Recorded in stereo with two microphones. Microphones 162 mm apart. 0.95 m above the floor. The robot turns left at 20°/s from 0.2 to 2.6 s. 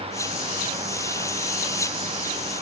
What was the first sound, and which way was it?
Only background noise.